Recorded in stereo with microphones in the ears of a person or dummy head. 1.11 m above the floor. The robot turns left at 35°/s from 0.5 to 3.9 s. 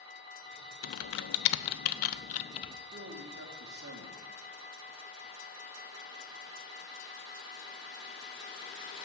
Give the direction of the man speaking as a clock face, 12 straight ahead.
2 o'clock.